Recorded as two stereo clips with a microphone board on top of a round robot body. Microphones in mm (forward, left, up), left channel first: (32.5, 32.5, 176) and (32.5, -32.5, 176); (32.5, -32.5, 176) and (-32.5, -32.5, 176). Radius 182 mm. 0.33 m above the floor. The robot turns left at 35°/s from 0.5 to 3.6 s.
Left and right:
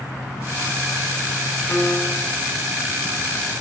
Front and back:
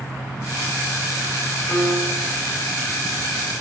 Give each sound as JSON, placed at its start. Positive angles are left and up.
{"t": 1.7, "sound": "a piano", "azimuth_deg": 55, "distance_m": 5.0}